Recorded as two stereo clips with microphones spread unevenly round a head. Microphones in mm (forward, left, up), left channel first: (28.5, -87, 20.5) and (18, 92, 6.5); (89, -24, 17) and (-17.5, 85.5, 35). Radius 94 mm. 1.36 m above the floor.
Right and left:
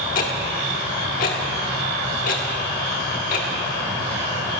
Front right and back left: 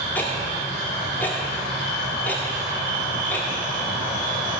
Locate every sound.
0.1 s ticking: 130° right, 1.6 m